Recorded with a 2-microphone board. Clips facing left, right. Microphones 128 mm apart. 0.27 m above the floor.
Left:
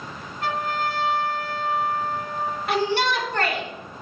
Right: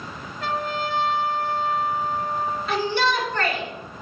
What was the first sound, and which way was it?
A trumpet, 55° left (ahead or behind).